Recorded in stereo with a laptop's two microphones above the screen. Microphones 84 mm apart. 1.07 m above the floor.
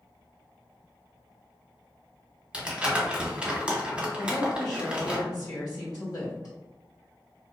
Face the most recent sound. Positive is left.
turn(degrees=45)  # may be behind; listen again after turning